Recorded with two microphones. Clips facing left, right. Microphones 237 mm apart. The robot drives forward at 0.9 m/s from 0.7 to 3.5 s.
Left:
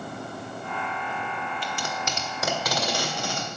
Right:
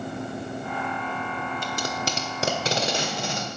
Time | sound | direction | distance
1.6 | tape being pulled | 45° right (ahead or behind) | 1.1 m